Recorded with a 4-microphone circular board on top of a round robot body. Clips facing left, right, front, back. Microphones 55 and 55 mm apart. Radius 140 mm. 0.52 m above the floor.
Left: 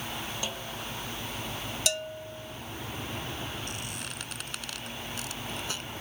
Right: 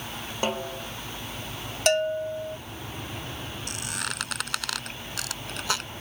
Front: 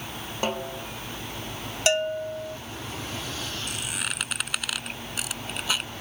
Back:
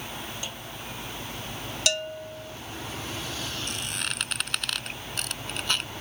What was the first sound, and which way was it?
A snare drum, 45° right.